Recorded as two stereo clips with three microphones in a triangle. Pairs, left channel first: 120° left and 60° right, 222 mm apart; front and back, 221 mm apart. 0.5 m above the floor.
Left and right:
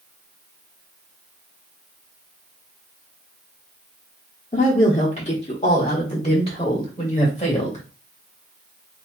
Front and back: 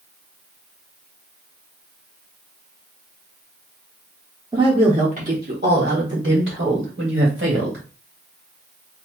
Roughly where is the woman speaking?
Behind left.